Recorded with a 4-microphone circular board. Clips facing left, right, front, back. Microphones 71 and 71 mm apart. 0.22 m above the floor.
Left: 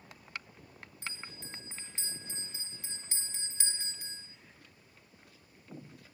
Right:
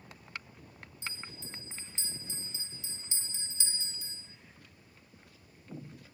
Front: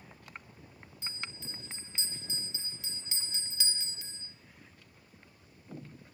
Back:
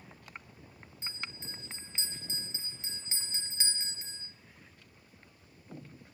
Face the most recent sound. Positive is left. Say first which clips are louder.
# right 1 dB, even
turn(degrees=125)